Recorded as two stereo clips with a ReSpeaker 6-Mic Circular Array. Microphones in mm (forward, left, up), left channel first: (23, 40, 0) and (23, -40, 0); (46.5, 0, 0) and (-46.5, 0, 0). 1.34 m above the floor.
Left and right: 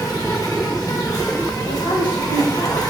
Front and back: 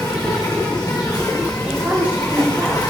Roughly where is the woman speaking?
Left.